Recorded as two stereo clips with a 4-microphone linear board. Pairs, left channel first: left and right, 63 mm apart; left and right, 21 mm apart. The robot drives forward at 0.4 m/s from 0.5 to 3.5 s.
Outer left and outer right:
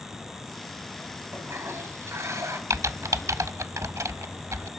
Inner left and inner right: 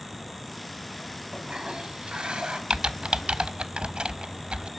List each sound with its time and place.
1.3 s a toilet flushing: 45° right (ahead or behind), 2 m; by 2.6 s 55° right (ahead or behind), 1.9 m
2.7 s typing on a keyboard: 55° right (ahead or behind), 0.6 m